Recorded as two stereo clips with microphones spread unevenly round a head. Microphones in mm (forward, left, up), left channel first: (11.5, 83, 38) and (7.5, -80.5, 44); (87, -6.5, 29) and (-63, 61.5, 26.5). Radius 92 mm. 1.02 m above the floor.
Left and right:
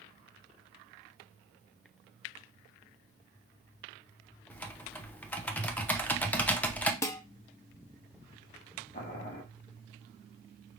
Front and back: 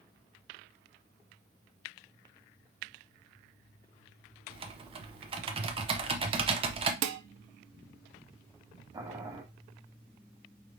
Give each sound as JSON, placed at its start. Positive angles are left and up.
{"t": 4.5, "sound": "typing on a keyboard", "azimuth_deg": 160, "distance_m": 0.8}
{"t": 7.0, "sound": "dishes clattering", "azimuth_deg": 165, "distance_m": 0.6}
{"t": 8.9, "sound": "boiling", "azimuth_deg": 100, "distance_m": 1.0}